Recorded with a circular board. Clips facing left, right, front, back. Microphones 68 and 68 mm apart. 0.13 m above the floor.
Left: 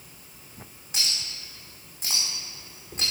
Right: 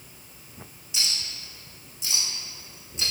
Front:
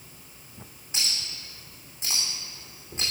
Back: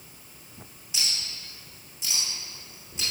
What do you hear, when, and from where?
0.9 s a clink: 45° left, 5.5 m